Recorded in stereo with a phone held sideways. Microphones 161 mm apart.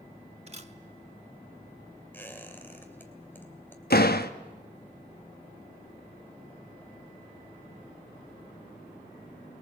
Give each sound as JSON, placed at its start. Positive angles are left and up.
{"t": 0.5, "sound": "a camera shutter", "side_deg": -40, "distance_m": 1.3}
{"t": 2.1, "sound": "a squeak", "side_deg": 10, "distance_m": 2.5}
{"t": 3.9, "sound": "a door slam", "side_deg": 70, "distance_m": 1.0}